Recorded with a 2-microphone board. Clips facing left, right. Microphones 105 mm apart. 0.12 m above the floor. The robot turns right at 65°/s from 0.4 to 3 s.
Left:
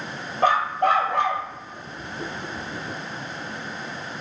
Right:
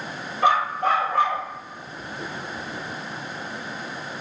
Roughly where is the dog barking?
Ahead left.